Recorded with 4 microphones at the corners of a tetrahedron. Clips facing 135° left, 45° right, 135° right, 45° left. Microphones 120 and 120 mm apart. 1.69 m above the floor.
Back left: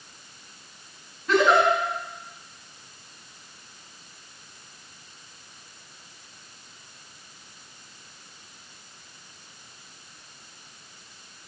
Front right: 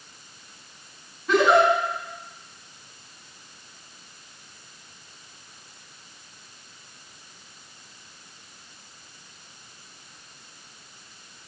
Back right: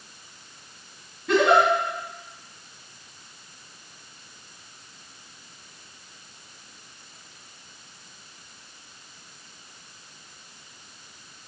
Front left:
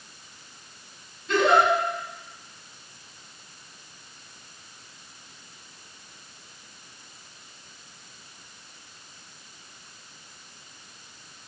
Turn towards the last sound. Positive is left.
turn(degrees=-135)